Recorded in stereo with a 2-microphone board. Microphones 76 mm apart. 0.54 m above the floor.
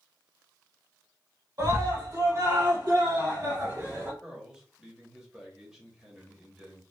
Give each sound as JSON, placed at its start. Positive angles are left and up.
{"t": 1.6, "sound": "a scream", "side_deg": -50, "distance_m": 2.5}
{"t": 4.2, "sound": "a man speaking", "side_deg": -10, "distance_m": 1.8}